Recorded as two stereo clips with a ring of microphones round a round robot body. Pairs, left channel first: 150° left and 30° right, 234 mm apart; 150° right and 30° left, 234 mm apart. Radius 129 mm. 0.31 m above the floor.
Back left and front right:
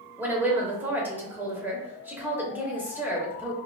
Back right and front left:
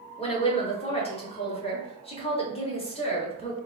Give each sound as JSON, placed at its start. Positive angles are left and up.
{"t": 0.2, "sound": "a woman speaking", "azimuth_deg": -105, "distance_m": 1.0}